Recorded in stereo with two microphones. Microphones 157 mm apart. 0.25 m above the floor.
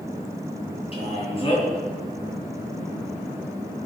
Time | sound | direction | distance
0.9 | a man speaking | 35° left (ahead or behind) | 3 m